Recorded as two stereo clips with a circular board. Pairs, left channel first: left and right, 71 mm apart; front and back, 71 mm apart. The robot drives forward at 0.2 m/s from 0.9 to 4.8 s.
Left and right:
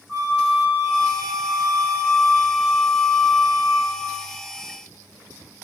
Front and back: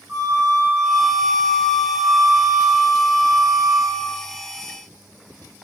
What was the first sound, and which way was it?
A flute, 135° left.